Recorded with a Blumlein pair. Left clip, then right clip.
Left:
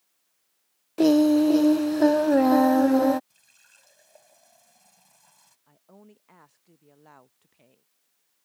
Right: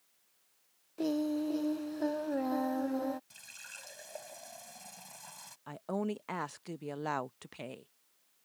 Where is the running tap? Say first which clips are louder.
Right 10 dB; 65° right.